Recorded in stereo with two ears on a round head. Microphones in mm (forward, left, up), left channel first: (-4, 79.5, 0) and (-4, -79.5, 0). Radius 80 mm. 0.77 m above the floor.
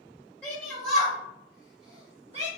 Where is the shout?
15° left (ahead or behind), 1.4 m; by 2.5 s 40° right (ahead or behind), 1.2 m.